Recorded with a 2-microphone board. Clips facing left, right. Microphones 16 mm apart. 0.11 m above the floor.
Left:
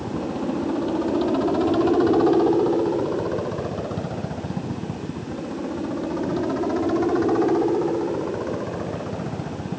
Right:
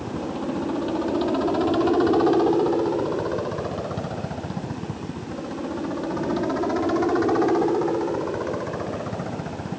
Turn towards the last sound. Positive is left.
turn(degrees=-10)  # may be behind; listen again after turning